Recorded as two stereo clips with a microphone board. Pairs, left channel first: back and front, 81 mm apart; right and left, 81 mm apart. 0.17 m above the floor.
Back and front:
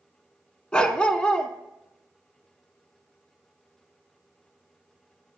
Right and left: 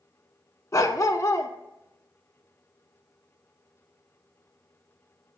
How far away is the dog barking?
About 0.7 m.